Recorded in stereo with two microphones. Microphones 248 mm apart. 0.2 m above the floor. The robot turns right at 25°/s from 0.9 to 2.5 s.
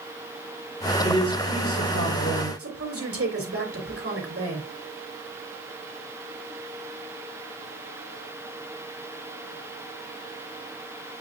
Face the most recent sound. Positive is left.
turn(degrees=-65)  # may be behind; listen again after turning